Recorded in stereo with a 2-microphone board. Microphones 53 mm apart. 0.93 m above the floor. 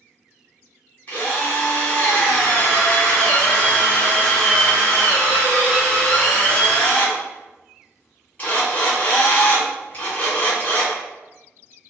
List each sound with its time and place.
1.1 s a drill: 30° left (ahead or behind), 1.4 m